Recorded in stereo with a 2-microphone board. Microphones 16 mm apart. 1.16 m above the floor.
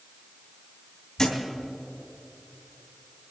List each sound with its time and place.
1.2 s a thud: 30° left (ahead or behind), 2.5 m